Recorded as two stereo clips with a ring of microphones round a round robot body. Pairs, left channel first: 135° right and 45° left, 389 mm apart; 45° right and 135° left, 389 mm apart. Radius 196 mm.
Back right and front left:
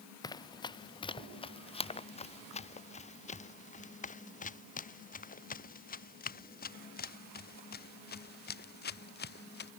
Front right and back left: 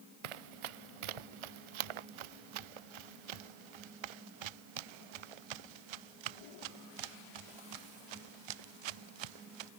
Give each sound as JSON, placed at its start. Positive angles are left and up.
{"t": 0.2, "sound": "running footsteps", "azimuth_deg": 145}